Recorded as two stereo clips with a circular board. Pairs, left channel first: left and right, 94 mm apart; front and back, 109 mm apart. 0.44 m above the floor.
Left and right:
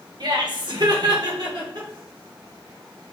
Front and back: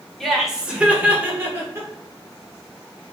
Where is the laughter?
90° right, 1.2 m; by 1.9 s 120° right, 1.8 m.